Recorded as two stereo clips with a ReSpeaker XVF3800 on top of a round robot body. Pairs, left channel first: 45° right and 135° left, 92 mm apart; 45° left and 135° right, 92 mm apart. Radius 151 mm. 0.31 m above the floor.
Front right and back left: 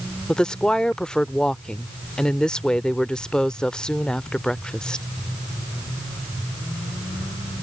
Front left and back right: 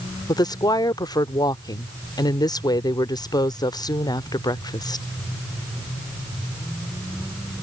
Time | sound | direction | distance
0.3 | a woman speaking | 35° left | ?